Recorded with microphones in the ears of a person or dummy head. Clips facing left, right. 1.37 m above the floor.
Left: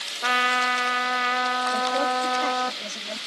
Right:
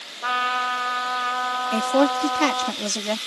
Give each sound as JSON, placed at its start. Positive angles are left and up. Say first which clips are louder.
{"t": 0.2, "sound": "a trumpet", "louder": "left 1 dB", "side_deg": 30}
{"t": 1.7, "sound": "a woman speaking", "louder": "right 8 dB", "side_deg": -85}